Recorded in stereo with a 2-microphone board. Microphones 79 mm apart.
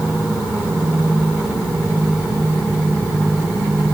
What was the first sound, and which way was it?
Only background noise.